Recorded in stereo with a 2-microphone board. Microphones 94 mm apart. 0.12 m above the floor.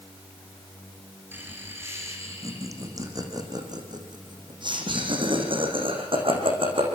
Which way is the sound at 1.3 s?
20° right (ahead or behind).